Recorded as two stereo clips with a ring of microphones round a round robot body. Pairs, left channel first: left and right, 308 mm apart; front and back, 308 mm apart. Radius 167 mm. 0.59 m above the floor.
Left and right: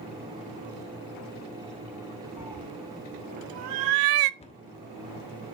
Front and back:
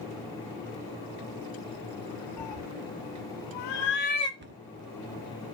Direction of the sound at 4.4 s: 150° left.